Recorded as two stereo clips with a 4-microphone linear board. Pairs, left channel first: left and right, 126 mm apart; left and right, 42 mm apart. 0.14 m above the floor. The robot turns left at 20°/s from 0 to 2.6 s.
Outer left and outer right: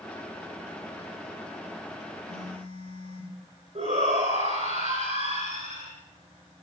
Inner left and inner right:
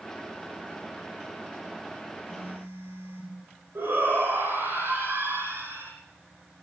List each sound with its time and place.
2.2 s a phone buzzing: 80° right, 8.5 m; by 3.4 s 75° right (ahead or behind), 8.5 m
3.8 s a shout: 65° right (ahead or behind), 6.5 m